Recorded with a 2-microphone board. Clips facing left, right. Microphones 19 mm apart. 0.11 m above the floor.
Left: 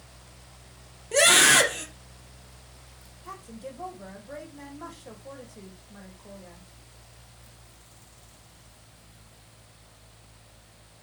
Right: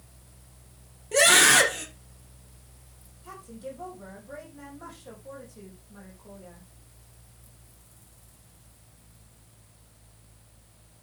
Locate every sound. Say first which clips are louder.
1.1 s a scream: even; 10° left (ahead or behind), 4 m
3.2 s a woman speaking: even; 20° left (ahead or behind), 5 m